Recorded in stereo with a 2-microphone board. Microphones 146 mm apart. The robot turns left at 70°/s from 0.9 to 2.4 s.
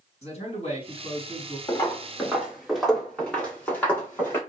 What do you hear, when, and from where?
0.2 s a man speaking: 80° left, 1.9 m; by 1.6 s 30° left, 1.9 m
1.7 s footsteps: 30° left (ahead or behind), 1.3 m; by 4.4 s 15° left (ahead or behind), 2.5 m